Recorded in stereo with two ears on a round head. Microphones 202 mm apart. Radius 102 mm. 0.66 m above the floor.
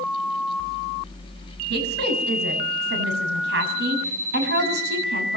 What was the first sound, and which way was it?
A woman speaking, 50° right (ahead or behind).